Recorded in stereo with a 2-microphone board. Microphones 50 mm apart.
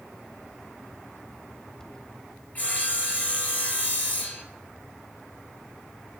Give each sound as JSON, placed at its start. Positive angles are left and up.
{"t": 2.5, "sound": "sawing", "side_deg": 35, "distance_m": 1.7}